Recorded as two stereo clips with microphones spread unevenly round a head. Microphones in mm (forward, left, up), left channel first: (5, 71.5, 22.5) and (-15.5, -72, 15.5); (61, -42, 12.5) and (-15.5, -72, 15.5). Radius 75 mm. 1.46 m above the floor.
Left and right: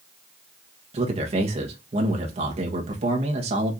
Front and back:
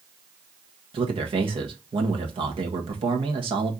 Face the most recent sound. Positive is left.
turn(degrees=-145)